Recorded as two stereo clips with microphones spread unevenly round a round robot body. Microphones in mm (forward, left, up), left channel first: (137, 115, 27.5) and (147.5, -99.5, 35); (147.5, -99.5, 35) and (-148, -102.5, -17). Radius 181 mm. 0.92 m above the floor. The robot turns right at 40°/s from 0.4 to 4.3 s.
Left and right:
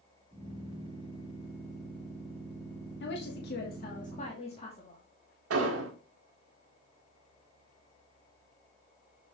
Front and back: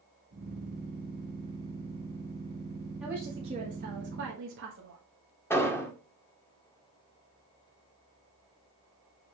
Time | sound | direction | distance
3.0 | a woman speaking | 100° left | 1.2 m
5.5 | an explosion | 80° right | 1.6 m